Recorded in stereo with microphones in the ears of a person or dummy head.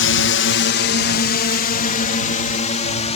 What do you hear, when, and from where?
0.0 s a drone: 60° left (ahead or behind); by 3.2 s 30° left (ahead or behind)